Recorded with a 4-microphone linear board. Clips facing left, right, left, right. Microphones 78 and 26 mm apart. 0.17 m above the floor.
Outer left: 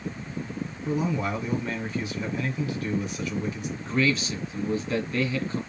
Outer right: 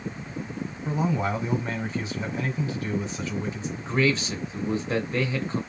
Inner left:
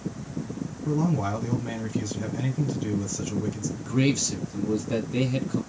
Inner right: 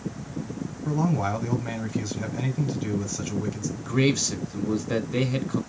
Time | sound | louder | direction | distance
0.8 | a man speaking | outer right 1 dB, inner right 1 dB | 25° right (ahead or behind) | 1.3 m
3.8 | a man speaking | outer right 1 dB, inner right 1 dB | 25° right (ahead or behind) | 1.3 m